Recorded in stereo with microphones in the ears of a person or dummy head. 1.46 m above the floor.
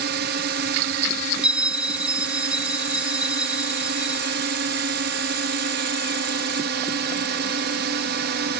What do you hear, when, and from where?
0.0 s a drone: 60° right (ahead or behind)
1.4 s a bell: 10° right (ahead or behind)